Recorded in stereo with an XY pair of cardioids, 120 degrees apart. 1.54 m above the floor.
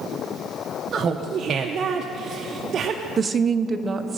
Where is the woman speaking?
35° right, 1.0 m.